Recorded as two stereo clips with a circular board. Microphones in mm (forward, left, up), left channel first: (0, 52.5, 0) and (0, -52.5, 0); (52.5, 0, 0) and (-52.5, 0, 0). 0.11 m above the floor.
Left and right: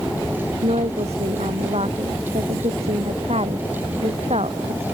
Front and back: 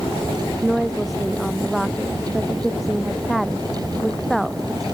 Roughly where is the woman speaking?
Right.